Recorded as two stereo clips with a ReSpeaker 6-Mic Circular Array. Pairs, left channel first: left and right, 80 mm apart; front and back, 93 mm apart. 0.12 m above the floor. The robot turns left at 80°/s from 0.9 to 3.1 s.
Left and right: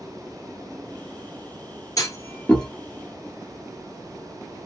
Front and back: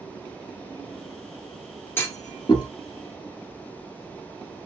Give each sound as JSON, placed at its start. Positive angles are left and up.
{"t": 2.0, "sound": "a clunk", "azimuth_deg": 60, "distance_m": 1.3}